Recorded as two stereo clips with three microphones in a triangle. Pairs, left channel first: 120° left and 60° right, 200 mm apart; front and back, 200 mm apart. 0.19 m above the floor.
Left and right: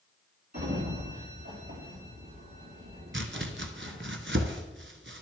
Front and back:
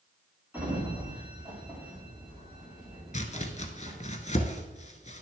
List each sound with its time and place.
0.5 s a sliding door: 100° right, 3 m
3.1 s chopping: 50° right, 0.9 m